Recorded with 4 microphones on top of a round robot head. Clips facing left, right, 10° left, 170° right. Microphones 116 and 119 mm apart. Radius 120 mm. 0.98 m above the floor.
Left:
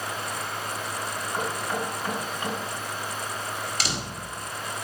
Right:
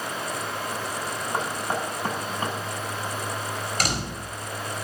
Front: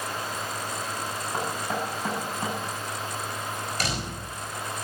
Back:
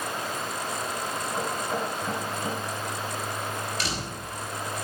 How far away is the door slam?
About 4.5 m.